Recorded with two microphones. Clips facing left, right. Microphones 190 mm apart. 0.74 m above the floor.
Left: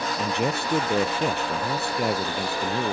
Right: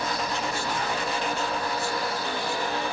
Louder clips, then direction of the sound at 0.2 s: Left 4 dB; 65° left (ahead or behind).